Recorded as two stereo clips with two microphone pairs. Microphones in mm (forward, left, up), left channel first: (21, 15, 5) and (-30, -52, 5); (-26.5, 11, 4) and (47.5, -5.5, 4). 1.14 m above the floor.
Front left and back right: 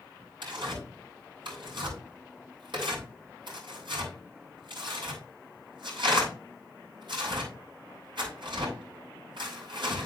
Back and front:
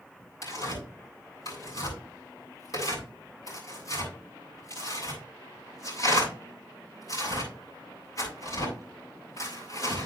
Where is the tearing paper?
150° right, 8.5 m.